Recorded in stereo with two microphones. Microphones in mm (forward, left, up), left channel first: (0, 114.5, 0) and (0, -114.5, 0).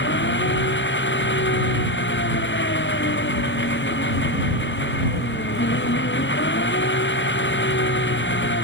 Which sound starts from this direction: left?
An engine running, at 0.0 s.